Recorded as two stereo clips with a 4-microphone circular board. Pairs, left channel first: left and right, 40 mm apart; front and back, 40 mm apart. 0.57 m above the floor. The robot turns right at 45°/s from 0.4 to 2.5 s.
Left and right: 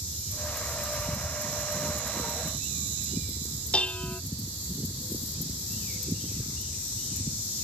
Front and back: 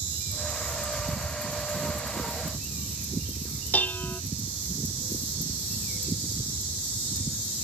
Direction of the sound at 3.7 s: 35° left.